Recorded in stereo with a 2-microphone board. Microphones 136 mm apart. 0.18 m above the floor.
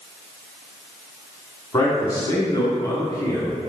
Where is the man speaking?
30° left (ahead or behind), 1.3 m.